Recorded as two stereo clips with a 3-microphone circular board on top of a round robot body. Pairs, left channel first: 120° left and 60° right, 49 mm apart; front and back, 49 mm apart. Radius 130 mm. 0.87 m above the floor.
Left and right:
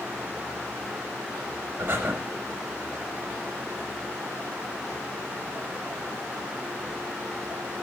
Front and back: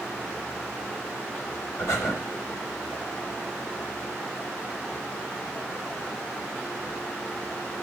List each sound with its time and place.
1.8 s breathing: 15° right, 0.7 m